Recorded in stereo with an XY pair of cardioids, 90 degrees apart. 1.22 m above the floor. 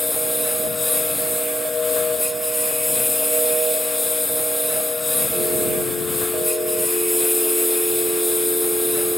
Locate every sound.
0.0 s a lawn mower: 20° left